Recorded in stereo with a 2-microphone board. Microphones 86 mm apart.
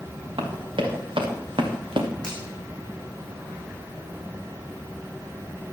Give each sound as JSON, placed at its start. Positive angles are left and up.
{"t": 0.4, "sound": "running footsteps", "side_deg": -80, "distance_m": 4.5}
{"t": 2.2, "sound": "a finger snap", "side_deg": 5, "distance_m": 7.0}